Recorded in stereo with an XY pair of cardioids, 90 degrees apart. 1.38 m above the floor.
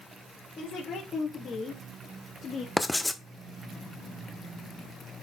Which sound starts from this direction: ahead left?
A woman speaking, at 0.6 s.